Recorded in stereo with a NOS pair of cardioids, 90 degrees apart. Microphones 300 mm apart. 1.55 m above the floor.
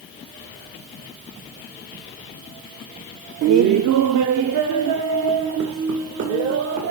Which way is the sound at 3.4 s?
60° right.